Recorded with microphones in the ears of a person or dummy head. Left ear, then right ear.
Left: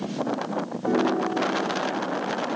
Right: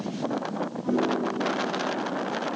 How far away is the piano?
About 0.8 m.